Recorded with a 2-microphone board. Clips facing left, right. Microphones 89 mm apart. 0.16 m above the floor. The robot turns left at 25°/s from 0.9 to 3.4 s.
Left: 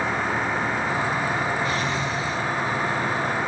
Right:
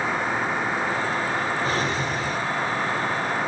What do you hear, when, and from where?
1.6 s a drawer: 35° right (ahead or behind), 1.6 m; by 2.4 s 50° right (ahead or behind), 1.6 m